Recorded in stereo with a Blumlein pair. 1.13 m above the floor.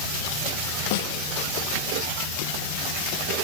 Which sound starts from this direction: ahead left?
A snare drum, at 0.9 s.